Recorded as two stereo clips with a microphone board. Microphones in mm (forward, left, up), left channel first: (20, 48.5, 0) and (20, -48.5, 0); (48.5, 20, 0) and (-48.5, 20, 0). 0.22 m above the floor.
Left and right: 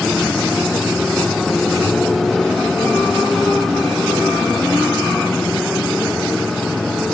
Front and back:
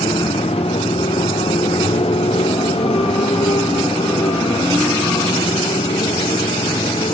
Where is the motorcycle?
Straight ahead.